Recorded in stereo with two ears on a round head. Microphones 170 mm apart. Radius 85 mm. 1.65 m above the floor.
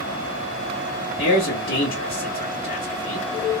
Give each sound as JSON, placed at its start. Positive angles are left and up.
{"t": 1.2, "sound": "a man speaking", "side_deg": 55, "distance_m": 1.4}